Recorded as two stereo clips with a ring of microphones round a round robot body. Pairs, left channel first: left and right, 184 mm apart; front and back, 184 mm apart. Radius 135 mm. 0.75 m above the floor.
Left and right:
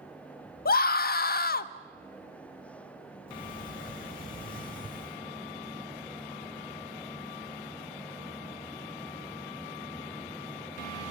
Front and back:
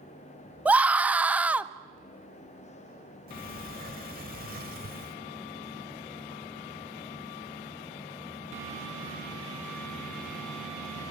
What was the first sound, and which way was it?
A scream, 100° left.